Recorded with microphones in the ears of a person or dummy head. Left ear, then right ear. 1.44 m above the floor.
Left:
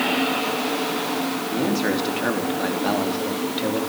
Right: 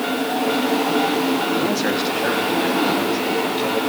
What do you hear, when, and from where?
1.5 s a man speaking: 20° right (ahead or behind), 3.5 m; by 3.8 s 20° left (ahead or behind), 4 m